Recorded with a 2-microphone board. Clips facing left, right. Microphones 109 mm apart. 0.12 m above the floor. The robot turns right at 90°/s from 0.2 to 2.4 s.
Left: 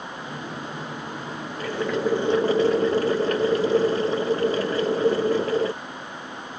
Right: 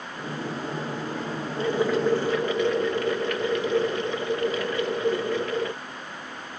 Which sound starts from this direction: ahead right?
Boiling, at 1.6 s.